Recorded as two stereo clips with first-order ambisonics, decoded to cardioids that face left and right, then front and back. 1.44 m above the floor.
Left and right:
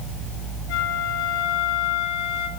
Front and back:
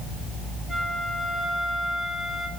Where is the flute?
85° left, 3 m.